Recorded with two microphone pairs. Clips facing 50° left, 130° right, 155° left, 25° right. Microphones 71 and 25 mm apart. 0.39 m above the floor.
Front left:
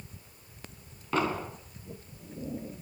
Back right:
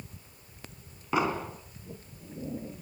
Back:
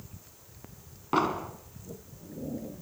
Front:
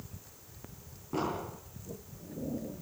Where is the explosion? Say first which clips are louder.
Back right 1 dB, back 7 dB; 150° left, 4 m.